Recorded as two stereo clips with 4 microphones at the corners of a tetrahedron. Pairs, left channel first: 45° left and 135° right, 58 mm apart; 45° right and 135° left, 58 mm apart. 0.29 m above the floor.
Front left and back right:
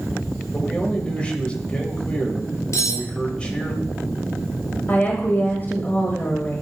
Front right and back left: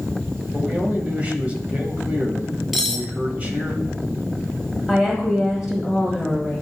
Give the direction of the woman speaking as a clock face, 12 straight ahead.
10 o'clock.